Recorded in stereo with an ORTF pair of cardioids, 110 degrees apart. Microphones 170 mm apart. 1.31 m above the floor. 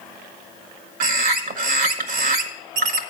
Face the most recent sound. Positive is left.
turn(degrees=-60)